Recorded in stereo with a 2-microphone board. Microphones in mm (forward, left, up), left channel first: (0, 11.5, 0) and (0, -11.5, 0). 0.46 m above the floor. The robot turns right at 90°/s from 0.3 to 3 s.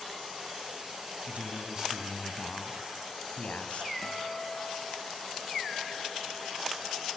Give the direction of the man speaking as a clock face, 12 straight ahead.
3 o'clock.